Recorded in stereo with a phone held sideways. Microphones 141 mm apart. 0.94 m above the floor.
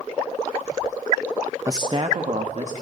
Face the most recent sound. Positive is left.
turn(degrees=-55)  # may be behind; listen again after turning